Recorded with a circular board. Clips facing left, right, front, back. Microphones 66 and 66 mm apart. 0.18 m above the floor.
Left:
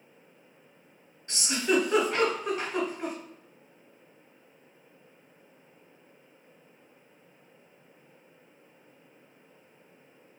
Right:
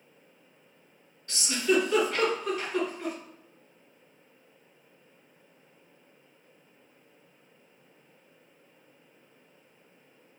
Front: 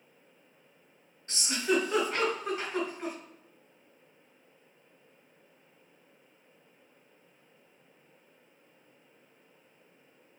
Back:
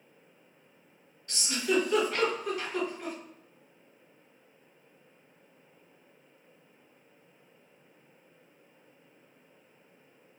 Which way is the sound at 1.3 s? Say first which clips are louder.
Right 1 dB, even; 45° left.